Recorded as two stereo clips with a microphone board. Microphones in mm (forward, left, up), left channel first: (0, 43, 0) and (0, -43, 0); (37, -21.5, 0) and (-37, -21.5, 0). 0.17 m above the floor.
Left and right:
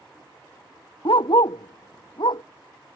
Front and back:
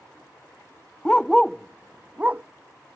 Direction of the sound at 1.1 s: 75° left.